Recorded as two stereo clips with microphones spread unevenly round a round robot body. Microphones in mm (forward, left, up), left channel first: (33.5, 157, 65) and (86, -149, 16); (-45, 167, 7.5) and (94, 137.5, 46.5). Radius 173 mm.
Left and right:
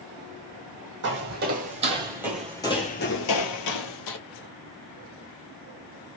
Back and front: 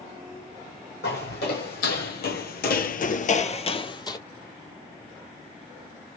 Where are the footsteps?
140° right, 1.9 m; by 4.2 s 100° left, 1.5 m.